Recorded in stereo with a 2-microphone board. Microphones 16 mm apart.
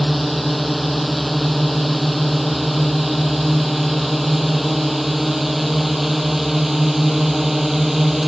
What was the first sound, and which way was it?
A drone, 5° left (ahead or behind).